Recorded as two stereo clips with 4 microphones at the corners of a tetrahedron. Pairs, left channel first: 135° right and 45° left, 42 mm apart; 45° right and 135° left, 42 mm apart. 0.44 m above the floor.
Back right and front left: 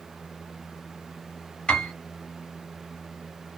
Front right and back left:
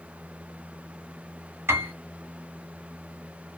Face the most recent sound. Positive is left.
turn(degrees=155)